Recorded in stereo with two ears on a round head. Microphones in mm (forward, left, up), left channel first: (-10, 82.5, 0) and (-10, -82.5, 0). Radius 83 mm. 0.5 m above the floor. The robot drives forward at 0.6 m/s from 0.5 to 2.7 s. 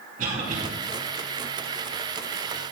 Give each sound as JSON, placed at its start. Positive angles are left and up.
{"t": 0.2, "sound": "a cough", "side_deg": -45, "distance_m": 4.0}